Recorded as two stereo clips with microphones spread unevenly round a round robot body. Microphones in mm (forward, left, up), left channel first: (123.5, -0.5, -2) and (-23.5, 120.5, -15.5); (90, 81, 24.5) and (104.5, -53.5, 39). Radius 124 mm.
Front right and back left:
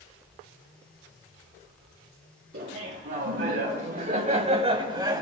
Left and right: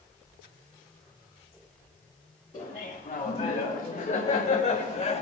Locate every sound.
2.5 s laughter: 155° left, 3 m; by 5.2 s 70° left, 2.5 m